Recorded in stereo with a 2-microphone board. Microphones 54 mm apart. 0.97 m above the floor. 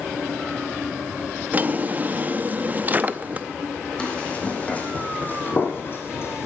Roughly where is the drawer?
Right.